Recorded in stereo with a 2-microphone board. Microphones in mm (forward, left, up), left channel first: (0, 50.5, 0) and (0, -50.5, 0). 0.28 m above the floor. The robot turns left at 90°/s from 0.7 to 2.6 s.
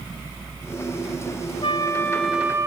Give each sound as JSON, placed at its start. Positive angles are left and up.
{"t": 1.6, "sound": "a flute", "azimuth_deg": 60, "distance_m": 0.9}